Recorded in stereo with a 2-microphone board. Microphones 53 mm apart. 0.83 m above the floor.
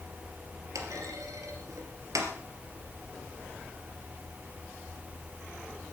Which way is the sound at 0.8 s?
80° right.